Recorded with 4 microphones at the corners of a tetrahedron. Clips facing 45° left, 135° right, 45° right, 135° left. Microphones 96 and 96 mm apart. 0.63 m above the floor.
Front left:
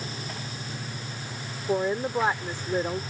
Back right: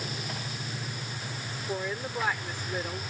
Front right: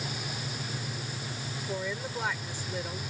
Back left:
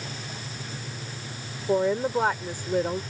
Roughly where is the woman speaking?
Left.